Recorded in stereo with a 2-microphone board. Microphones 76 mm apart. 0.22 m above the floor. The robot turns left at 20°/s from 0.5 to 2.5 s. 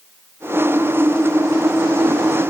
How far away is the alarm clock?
No alarm clock in this recording.